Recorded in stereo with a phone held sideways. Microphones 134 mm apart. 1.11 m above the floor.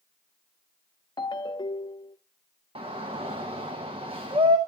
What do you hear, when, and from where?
1.2 s a ringtone: 35° left (ahead or behind), 0.6 m
2.8 s a shout: 45° right (ahead or behind), 1.1 m